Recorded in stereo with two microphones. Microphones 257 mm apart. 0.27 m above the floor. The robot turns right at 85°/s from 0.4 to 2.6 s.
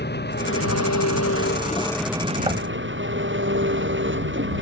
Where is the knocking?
20° right (ahead or behind); by 2.7 s 15° right (ahead or behind).